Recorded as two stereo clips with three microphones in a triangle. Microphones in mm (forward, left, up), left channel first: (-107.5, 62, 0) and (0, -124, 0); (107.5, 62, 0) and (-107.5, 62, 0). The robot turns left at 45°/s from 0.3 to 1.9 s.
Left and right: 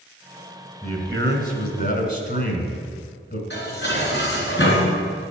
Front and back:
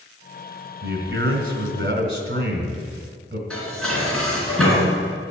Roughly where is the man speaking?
Behind.